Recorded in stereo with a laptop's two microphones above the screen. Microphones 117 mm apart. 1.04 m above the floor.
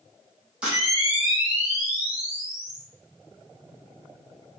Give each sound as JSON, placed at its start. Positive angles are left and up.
{"t": 0.6, "sound": "a camera shutter", "side_deg": -10, "distance_m": 1.1}